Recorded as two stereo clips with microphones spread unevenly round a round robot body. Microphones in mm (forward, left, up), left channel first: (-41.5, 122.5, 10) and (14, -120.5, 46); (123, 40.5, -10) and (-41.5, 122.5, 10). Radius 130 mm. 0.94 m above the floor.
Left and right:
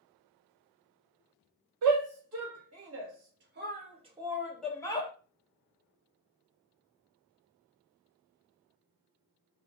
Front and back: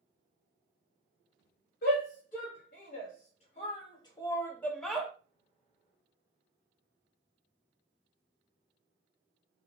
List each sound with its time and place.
1.8 s a shout: 65° right, 1.7 m; by 5.1 s 60° left, 0.9 m